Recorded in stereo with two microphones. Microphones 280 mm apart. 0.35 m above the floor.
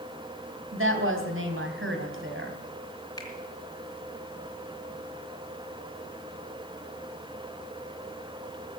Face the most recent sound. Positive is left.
turn(degrees=15)  # may be behind; listen again after turning